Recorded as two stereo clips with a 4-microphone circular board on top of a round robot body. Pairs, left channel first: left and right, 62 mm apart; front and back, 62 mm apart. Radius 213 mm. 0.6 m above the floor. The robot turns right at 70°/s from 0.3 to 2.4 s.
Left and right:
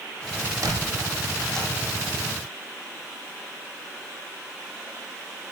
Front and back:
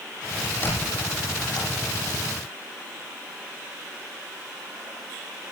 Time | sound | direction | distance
0.6 | a squeak | 60° right | 9.5 m